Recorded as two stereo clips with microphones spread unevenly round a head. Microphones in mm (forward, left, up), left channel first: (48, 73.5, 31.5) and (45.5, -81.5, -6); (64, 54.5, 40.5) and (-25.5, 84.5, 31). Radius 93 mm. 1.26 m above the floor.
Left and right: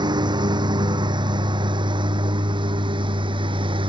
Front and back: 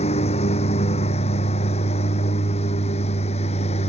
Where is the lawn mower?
30° right.